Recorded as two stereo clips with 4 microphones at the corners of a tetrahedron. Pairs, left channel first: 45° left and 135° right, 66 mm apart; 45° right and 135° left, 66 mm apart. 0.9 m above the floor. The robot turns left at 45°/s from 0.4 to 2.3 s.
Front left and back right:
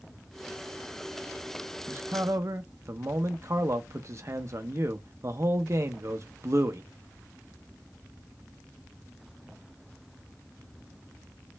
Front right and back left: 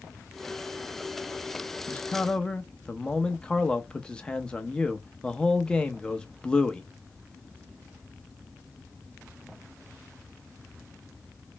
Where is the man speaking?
100° right, 0.6 m; by 6.8 s 120° right, 0.6 m.